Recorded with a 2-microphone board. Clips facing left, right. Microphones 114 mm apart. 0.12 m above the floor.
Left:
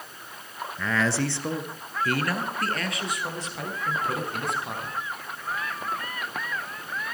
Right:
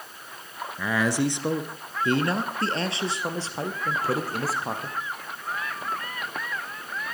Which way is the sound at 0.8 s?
10° right (ahead or behind).